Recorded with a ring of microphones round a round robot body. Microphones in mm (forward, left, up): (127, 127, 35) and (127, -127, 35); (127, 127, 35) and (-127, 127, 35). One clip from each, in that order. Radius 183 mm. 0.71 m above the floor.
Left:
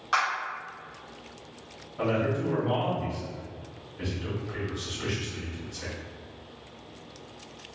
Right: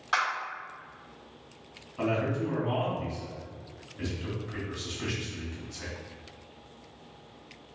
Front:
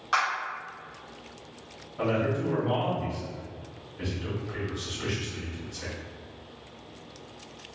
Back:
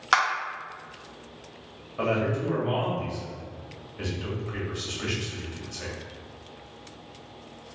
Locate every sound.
0.1 s a clap: 175° left, 1.5 m
2.0 s a man speaking: 145° right, 1.6 m